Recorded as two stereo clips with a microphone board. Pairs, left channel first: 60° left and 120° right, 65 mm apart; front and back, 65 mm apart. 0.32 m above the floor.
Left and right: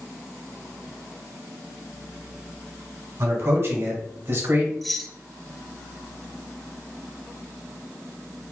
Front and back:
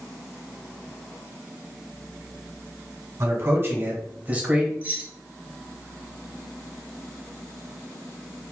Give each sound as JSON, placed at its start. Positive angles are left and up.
{"t": 3.2, "sound": "a man speaking", "azimuth_deg": -155, "distance_m": 1.5}
{"t": 4.8, "sound": "keys jangling", "azimuth_deg": 145, "distance_m": 0.7}